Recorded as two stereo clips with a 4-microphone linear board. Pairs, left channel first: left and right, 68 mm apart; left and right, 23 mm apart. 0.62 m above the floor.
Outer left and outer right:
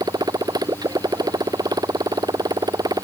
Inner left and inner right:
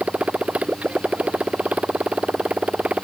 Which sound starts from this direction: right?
A motorcycle, at 0.0 s.